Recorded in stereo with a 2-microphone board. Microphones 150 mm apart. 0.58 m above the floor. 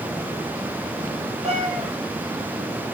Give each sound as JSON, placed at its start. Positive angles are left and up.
{"t": 1.4, "sound": "a cat meowing", "side_deg": -45, "distance_m": 5.0}